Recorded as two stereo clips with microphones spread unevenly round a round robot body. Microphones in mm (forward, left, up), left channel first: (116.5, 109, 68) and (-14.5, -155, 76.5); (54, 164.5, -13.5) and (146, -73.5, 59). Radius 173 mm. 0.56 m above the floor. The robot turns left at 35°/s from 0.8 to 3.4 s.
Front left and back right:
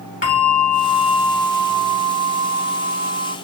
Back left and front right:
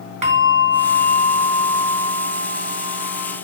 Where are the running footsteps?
I don't hear running footsteps.